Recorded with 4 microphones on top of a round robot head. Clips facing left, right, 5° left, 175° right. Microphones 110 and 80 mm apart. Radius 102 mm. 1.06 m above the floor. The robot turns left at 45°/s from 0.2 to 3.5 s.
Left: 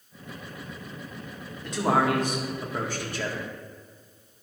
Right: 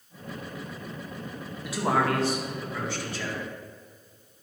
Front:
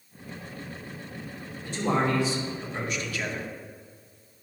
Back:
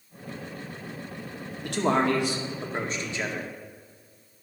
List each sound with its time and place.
1.6 s a man speaking: 170° right, 1.8 m; by 3.5 s 105° left, 1.8 m